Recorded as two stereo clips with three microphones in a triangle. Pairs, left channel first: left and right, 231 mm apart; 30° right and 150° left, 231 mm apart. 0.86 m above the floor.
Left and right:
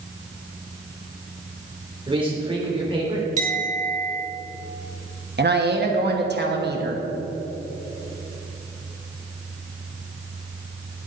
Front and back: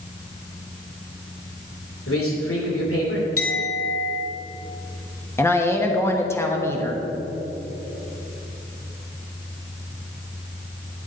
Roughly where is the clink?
Ahead right.